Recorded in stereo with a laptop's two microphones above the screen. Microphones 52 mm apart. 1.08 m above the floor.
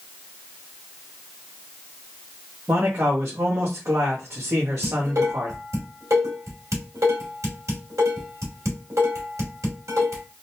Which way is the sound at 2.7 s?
65° right (ahead or behind).